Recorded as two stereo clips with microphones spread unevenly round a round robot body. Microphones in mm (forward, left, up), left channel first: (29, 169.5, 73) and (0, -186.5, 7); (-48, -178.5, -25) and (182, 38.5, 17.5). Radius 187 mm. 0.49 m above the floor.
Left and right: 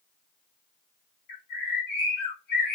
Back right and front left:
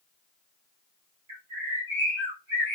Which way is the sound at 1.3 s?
105° left.